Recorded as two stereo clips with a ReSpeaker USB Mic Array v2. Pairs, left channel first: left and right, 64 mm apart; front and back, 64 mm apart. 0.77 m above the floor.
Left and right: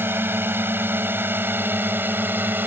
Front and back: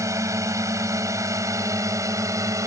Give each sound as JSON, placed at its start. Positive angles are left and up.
{"t": 0.0, "sound": "a drone", "azimuth_deg": -145}